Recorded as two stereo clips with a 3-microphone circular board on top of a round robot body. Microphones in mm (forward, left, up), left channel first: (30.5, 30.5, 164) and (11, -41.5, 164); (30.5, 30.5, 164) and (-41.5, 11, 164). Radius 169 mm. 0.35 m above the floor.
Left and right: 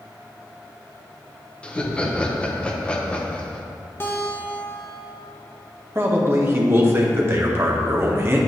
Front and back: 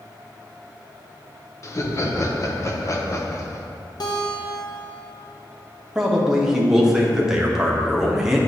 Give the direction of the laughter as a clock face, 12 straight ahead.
12 o'clock.